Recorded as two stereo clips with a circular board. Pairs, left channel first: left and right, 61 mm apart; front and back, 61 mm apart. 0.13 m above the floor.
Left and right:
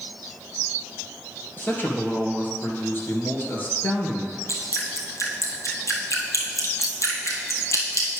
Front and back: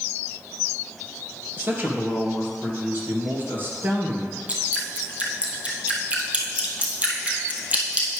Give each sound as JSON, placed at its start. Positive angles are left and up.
{"t": 1.6, "sound": "a man speaking", "azimuth_deg": 135, "distance_m": 1.9}
{"t": 4.5, "sound": "dripping", "azimuth_deg": 115, "distance_m": 1.3}